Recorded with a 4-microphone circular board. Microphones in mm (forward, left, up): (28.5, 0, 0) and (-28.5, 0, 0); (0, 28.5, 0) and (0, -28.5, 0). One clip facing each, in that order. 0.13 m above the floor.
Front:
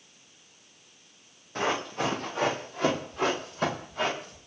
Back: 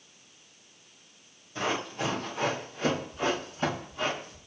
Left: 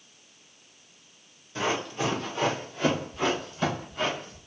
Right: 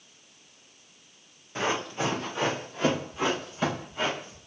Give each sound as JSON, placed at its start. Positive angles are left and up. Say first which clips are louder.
{"t": 1.6, "sound": "running footsteps", "louder": "front 2 dB, even", "azimuth_deg": -30, "distance_m": 3.5}